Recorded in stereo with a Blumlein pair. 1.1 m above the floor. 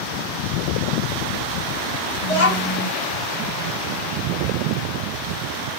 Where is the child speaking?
50° left, 1.2 m.